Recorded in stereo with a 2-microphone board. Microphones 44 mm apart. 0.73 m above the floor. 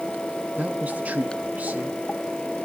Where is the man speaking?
35° right (ahead or behind), 0.9 m.